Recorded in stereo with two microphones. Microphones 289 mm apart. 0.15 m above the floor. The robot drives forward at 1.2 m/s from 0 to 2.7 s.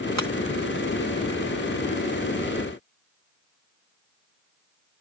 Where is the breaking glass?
65° right (ahead or behind).